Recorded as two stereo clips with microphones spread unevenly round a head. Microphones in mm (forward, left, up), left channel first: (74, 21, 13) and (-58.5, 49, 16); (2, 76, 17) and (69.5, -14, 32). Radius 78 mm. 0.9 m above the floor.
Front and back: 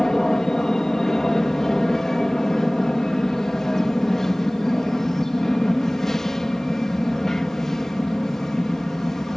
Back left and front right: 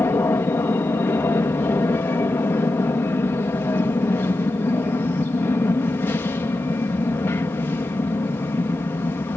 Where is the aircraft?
75° left.